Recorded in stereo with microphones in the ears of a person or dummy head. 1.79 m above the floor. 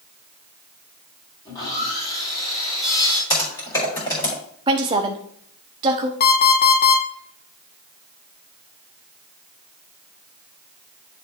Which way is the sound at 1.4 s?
20° left (ahead or behind).